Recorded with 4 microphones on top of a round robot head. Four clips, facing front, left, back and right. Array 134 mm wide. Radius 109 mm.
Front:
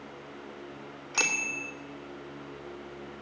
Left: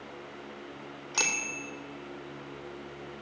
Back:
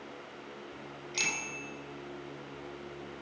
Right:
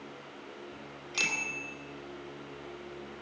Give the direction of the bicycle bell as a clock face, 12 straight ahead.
11 o'clock.